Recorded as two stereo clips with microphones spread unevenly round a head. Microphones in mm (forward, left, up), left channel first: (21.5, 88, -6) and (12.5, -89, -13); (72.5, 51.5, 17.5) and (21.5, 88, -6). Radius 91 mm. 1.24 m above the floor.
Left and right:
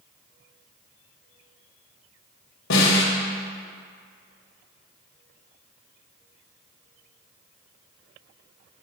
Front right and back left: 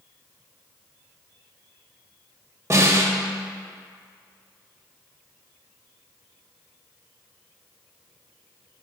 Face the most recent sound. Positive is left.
turn(degrees=95)